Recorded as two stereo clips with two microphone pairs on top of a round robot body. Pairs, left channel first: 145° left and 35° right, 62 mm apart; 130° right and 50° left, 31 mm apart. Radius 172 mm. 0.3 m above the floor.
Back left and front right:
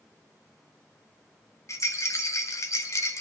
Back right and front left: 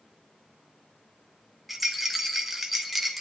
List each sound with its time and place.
1.7 s a rattle: 135° left, 1.6 m